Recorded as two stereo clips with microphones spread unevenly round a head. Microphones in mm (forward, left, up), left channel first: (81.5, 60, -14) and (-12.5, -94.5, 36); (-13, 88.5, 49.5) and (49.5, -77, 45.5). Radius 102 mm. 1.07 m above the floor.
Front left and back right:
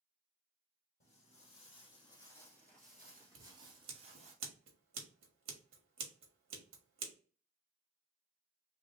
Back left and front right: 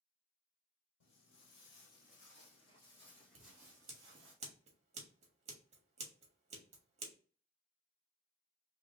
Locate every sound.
1.0 s footsteps: 115° left, 2 m; by 4.3 s 125° right, 1.6 m
3.4 s scissors: 125° right, 1.2 m